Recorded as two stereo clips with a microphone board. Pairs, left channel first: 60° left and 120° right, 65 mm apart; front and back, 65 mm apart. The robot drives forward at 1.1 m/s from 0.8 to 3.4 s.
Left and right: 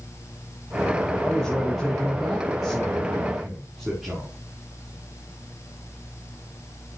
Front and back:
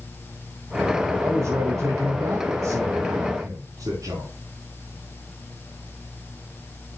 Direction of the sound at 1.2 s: 140° left.